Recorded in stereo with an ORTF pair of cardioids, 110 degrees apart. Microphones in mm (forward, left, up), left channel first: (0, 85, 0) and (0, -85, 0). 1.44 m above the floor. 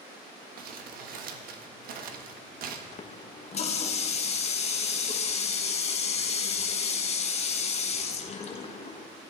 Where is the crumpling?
65° right, 1.5 m.